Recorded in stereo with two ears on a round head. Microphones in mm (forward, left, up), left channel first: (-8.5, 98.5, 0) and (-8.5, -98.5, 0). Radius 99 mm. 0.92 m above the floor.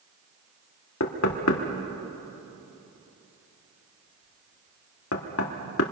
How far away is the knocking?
About 1.9 m.